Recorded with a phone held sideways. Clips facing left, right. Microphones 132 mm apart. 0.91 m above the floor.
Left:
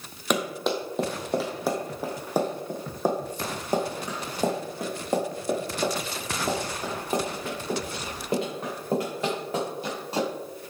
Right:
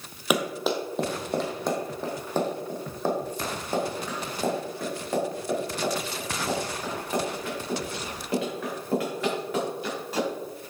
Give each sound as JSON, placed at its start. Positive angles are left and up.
{"t": 0.3, "sound": "running footsteps", "side_deg": -5, "distance_m": 1.6}